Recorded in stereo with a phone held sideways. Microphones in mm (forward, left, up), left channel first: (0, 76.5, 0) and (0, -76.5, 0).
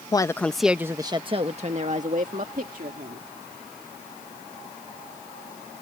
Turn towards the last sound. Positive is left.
turn(degrees=-70)  # may be behind; listen again after turning